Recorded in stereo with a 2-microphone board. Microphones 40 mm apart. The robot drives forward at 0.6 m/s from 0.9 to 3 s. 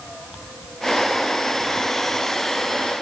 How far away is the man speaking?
No man speaking in this recording.